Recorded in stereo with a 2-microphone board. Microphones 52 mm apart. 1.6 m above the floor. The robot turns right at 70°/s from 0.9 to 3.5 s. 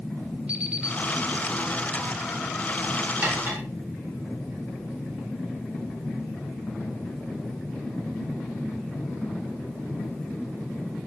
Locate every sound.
0.5 s an alarm clock: 20° right (ahead or behind), 4 m; by 1.0 s 25° right (ahead or behind), 4 m
3.2 s cutlery clinking: 35° right (ahead or behind), 4 m; by 3.6 s 55° right (ahead or behind), 4 m